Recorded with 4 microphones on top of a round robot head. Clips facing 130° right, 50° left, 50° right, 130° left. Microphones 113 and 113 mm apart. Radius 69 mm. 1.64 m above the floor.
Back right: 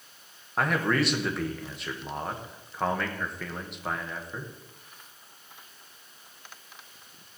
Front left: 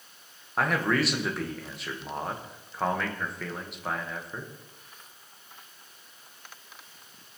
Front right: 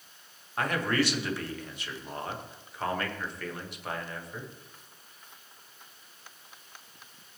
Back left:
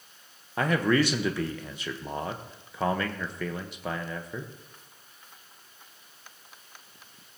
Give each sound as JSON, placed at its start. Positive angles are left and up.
{"t": 0.6, "sound": "a man speaking", "azimuth_deg": 140, "distance_m": 1.1}